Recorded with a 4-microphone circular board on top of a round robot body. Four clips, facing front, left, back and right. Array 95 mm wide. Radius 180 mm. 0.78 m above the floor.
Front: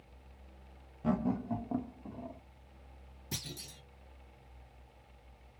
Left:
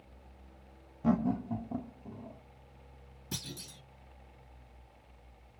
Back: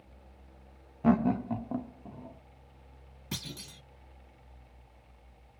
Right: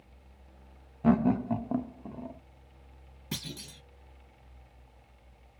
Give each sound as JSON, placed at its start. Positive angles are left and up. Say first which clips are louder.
{"t": 1.0, "sound": "laughter", "louder": "right 5 dB, back 7 dB", "azimuth_deg": -155, "distance_m": 0.6}
{"t": 3.3, "sound": "a clunk", "louder": "right 4 dB, back 3 dB", "azimuth_deg": -140, "distance_m": 1.8}